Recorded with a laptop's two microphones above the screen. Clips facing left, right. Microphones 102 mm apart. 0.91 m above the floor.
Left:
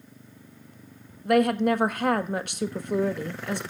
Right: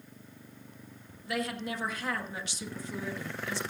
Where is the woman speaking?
55° left (ahead or behind), 1.1 m.